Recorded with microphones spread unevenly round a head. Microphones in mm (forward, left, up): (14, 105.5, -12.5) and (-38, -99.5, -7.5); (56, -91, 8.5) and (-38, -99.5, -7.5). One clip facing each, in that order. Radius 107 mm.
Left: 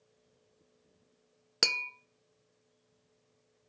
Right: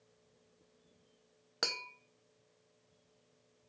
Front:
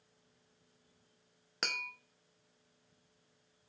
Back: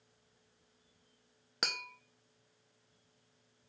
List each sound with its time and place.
1.6 s tapping: 110° left, 0.5 m